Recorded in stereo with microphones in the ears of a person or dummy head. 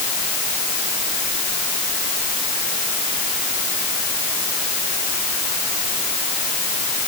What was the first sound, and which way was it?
Only background noise.